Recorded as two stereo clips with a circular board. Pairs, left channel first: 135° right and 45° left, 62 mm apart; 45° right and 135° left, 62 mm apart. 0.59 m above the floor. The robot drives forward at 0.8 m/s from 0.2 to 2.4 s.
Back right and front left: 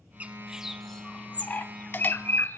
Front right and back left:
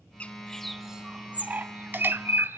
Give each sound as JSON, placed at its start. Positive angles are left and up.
{"t": 0.2, "sound": "a bird", "azimuth_deg": 5, "distance_m": 0.9}